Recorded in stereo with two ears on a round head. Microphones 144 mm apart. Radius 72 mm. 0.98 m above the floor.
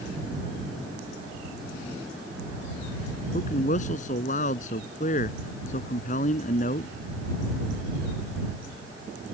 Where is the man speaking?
45° left (ahead or behind).